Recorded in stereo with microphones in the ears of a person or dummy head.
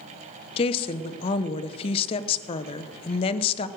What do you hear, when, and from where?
0.6 s a woman speaking: 35° left (ahead or behind), 0.8 m